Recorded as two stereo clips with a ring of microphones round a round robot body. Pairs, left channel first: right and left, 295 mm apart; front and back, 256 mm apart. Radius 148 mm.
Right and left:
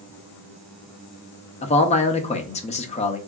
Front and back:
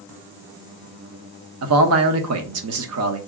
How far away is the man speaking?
About 0.9 m.